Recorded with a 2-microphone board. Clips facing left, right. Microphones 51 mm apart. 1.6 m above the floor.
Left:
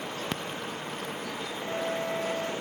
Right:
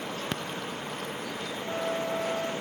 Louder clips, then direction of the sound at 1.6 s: Even; 30° left (ahead or behind).